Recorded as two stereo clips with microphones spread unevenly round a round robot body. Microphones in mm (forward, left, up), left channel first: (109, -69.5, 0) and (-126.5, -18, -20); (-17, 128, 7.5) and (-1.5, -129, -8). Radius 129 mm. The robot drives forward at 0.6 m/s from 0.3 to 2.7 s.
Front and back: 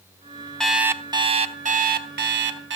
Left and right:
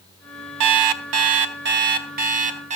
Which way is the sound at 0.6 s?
100° right.